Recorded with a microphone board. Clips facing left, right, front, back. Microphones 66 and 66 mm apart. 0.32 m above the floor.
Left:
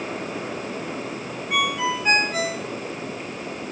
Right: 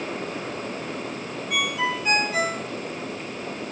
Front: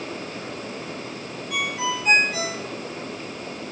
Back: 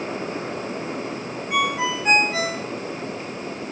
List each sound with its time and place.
1.5 s a ringtone: 130° left, 2.5 m